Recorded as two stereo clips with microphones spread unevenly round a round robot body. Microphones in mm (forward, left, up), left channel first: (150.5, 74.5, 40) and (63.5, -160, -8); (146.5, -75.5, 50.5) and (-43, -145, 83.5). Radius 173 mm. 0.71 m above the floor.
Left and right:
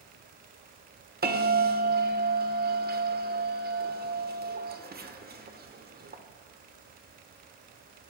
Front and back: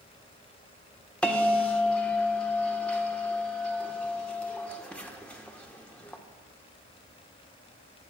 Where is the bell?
60° right, 2.0 m.